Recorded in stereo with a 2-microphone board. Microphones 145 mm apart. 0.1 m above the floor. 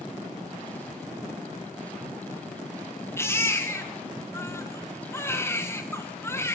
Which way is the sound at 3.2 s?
15° left (ahead or behind).